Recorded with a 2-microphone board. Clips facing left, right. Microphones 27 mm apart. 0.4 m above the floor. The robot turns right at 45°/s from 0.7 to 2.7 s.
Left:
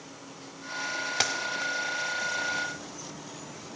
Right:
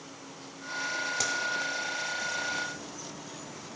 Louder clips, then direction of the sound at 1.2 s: Left 5 dB; 50° left (ahead or behind).